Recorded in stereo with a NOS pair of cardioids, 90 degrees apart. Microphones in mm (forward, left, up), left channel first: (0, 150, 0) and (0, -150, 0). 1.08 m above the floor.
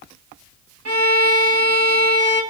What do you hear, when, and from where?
0.8 s a violin: 55° right, 1.6 m